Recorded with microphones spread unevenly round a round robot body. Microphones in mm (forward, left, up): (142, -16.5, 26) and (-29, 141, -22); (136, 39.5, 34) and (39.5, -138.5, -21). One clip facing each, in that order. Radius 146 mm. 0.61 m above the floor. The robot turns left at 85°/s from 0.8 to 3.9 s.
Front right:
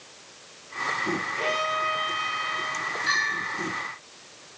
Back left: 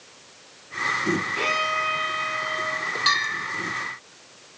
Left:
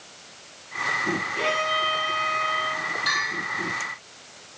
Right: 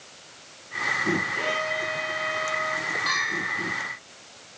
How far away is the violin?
About 2.5 m.